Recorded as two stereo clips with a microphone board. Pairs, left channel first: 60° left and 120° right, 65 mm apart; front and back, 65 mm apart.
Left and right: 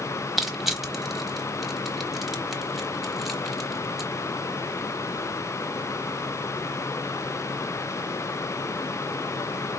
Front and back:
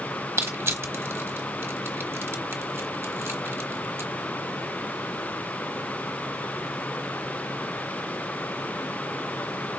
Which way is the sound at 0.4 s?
150° left.